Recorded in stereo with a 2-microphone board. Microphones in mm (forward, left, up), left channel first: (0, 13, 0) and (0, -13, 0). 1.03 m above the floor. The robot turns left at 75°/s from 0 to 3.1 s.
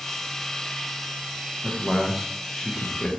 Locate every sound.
1.6 s a man speaking: 130° right, 0.5 m; by 3.1 s 120° left, 0.5 m